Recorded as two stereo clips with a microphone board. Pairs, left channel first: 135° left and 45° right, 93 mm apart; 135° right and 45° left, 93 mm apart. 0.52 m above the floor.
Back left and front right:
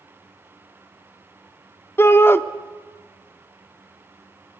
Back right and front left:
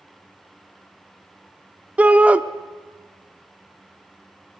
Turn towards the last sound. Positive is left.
turn(degrees=105)